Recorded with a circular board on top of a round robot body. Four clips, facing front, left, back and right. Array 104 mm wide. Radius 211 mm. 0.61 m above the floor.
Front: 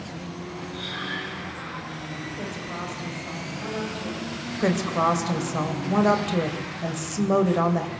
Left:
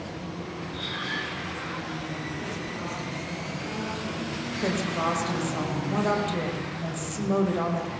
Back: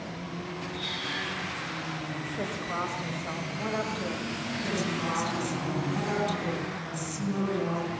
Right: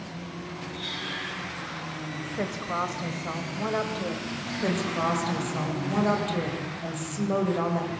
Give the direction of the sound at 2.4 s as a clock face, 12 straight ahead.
3 o'clock.